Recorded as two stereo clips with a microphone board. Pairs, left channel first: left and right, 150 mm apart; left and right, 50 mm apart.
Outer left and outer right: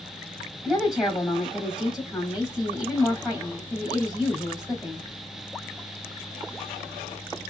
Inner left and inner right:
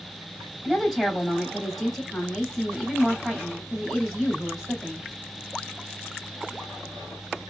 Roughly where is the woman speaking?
Centre.